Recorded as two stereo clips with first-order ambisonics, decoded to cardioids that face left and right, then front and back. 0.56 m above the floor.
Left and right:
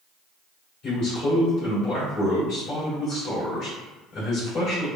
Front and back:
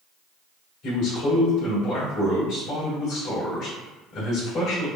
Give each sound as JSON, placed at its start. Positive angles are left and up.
{"t": 0.8, "sound": "a man speaking", "azimuth_deg": 55, "distance_m": 1.9}